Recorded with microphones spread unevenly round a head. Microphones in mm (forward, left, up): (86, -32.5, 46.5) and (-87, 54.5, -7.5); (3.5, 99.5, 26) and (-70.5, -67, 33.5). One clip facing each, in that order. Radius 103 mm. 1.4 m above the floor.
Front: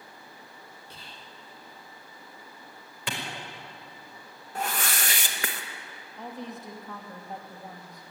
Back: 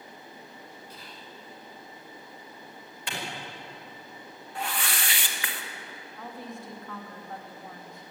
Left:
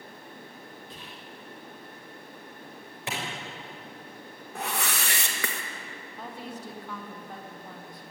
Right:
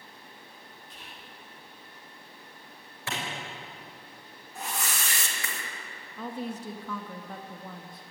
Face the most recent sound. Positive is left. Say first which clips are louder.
# front 2 dB, right 5 dB
turn(degrees=-100)